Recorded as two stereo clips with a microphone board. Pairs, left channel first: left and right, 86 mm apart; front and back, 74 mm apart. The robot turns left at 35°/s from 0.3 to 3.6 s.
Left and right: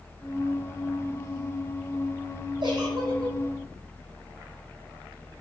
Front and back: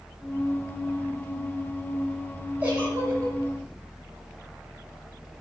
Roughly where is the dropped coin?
I don't hear a dropped coin.